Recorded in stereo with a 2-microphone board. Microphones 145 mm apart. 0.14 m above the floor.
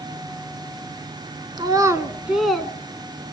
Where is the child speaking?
30° right (ahead or behind), 1.0 m; by 2.7 s 10° left (ahead or behind), 0.9 m.